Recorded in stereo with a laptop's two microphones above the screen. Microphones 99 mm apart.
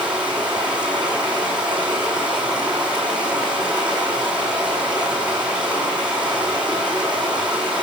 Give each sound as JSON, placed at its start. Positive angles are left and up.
{"t": 0.0, "sound": "running water", "side_deg": -10, "distance_m": 7.5}